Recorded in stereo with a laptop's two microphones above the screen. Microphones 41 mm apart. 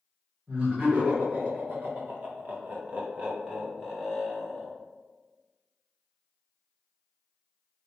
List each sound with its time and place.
0.5 s laughter: 40° right (ahead or behind), 1.4 m; by 4.7 s 10° right (ahead or behind), 1.3 m